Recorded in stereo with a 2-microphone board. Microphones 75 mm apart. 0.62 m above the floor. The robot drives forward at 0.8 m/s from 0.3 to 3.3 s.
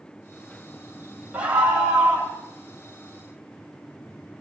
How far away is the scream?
About 3 m.